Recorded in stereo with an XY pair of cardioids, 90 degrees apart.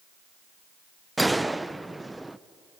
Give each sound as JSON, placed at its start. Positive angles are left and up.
{"t": 1.2, "sound": "a gunshot", "azimuth_deg": -15, "distance_m": 0.5}